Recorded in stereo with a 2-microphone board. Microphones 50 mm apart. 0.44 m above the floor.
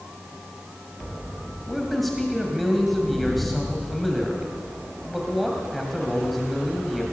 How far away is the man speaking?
About 2.5 m.